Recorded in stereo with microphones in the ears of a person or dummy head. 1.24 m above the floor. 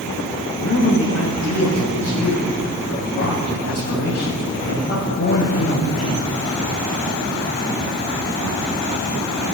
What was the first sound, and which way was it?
A man speaking, 75° left (ahead or behind).